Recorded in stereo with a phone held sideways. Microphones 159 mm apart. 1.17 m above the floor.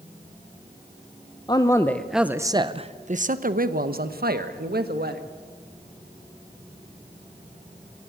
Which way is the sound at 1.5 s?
25° left (ahead or behind).